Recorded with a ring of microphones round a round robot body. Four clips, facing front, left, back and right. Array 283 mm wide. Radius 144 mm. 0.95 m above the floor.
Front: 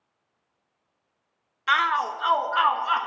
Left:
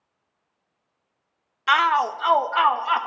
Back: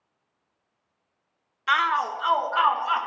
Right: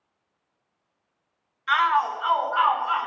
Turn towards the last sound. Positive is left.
turn(degrees=85)